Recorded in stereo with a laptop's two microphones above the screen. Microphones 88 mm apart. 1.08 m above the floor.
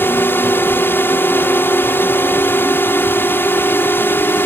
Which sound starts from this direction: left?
A drone, at 0.0 s.